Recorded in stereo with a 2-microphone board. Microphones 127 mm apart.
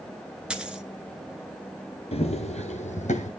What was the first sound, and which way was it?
A dropped coin, 5° right (ahead or behind).